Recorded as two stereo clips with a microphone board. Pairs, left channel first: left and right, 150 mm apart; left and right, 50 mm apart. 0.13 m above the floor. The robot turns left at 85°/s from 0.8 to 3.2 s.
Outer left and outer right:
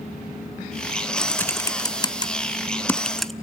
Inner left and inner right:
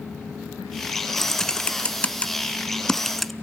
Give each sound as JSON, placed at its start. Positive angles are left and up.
{"t": 1.2, "sound": "typing on a keyboard", "side_deg": 5, "distance_m": 0.9}